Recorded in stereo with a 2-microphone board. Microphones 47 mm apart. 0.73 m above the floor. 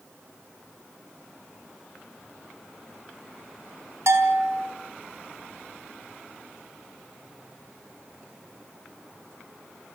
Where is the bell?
70° right (ahead or behind), 4 m.